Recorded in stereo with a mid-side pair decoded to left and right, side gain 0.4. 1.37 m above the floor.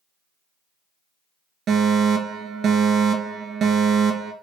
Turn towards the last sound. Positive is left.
turn(degrees=-65)